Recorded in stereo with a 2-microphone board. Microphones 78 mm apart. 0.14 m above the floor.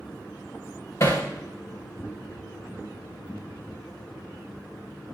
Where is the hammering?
35° left (ahead or behind), 3.5 m.